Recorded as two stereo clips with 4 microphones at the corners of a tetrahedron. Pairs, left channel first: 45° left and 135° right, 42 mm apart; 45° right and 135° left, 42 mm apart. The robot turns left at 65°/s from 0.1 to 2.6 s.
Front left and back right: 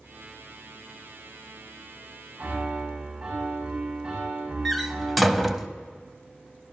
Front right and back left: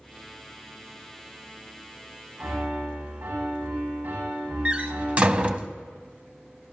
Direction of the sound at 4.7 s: 135° left.